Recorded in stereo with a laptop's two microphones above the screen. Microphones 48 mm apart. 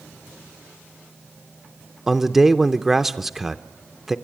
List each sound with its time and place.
2.1 s a man speaking: 5° right (ahead or behind), 0.6 m